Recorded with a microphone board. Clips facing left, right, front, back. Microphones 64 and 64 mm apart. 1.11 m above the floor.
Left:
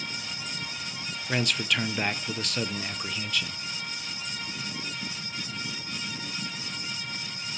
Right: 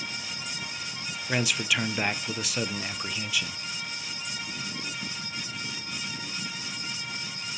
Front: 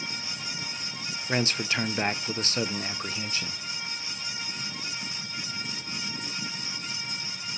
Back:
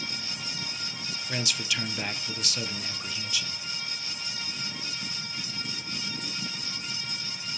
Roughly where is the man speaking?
Ahead.